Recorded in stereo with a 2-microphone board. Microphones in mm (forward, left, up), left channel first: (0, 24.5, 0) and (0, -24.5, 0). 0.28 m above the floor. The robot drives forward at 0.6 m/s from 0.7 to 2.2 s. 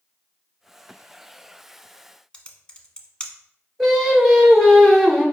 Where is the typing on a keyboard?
15° left (ahead or behind), 0.6 m.